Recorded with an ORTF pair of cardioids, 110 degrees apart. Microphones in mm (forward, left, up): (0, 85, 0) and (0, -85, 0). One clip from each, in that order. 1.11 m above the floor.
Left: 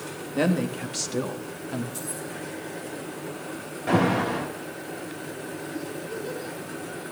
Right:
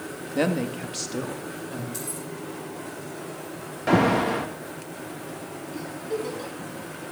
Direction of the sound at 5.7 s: 65° right.